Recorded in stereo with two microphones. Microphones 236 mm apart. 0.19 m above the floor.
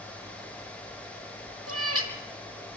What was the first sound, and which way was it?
A cat meowing, 80° right.